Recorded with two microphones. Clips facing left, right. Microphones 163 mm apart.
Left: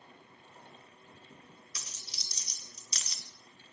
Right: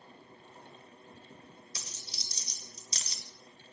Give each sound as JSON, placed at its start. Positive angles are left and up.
{"t": 1.8, "sound": "a dropped coin", "side_deg": -30, "distance_m": 0.8}